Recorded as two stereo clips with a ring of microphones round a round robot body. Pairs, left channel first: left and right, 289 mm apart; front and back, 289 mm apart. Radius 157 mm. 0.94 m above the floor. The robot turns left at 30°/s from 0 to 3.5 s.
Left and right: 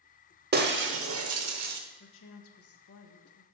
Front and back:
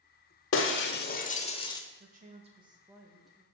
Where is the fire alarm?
No fire alarm in this recording.